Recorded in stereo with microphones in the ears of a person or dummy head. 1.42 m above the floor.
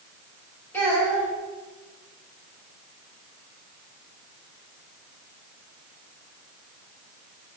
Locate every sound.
0.7 s a child speaking: 10° left (ahead or behind), 1.8 m